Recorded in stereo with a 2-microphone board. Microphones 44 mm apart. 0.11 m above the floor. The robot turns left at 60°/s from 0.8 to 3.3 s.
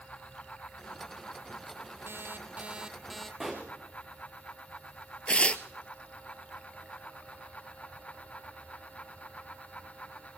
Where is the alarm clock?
115° right, 1.3 m; by 3.3 s 170° left, 1.3 m.